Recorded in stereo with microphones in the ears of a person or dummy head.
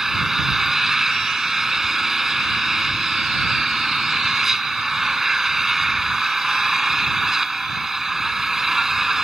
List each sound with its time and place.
0.0 s an engine running: centre (ahead or behind)